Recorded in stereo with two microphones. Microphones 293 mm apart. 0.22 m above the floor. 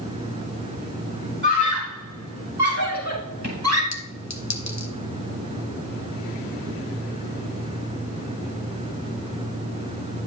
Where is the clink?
60° left (ahead or behind), 1.3 m.